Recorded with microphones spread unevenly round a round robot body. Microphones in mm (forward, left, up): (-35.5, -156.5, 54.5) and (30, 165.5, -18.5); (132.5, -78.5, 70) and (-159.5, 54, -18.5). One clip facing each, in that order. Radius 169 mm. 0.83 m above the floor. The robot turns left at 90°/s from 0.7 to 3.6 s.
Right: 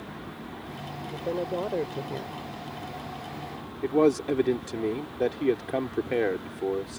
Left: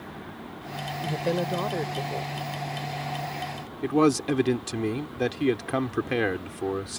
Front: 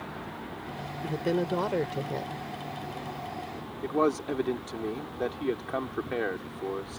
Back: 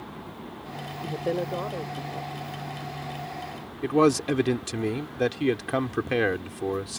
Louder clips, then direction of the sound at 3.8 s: Even, back 6 dB; 130° left.